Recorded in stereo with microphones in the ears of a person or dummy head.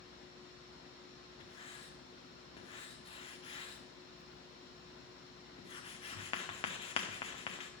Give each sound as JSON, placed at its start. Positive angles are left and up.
{"t": 1.4, "sound": "writing", "side_deg": 30, "distance_m": 0.9}